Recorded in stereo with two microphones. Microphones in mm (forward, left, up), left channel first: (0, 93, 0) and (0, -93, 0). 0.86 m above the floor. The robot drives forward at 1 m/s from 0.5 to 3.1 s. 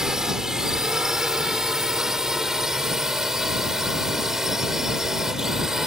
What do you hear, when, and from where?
0.0 s a drone: 5° right (ahead or behind)